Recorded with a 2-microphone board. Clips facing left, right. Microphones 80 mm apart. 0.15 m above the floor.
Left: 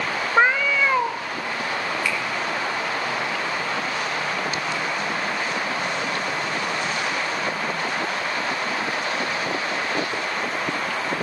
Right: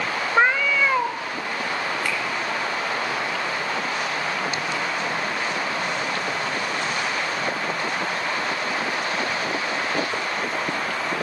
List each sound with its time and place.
0.4 s a cat meowing: 5° left (ahead or behind), 0.6 m
2.0 s a finger snap: 45° right (ahead or behind), 3 m